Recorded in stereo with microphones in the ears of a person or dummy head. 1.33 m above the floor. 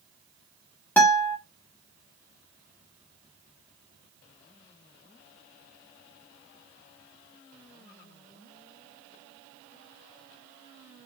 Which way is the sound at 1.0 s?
15° left (ahead or behind).